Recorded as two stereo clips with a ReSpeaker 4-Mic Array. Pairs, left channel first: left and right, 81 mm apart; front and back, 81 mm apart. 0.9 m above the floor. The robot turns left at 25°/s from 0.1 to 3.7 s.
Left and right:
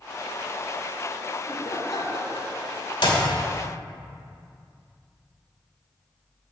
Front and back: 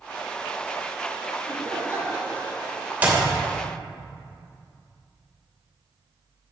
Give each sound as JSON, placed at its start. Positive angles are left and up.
{"t": 1.4, "sound": "laughter", "azimuth_deg": 130, "distance_m": 3.0}
{"t": 3.0, "sound": "a clap", "azimuth_deg": 110, "distance_m": 2.5}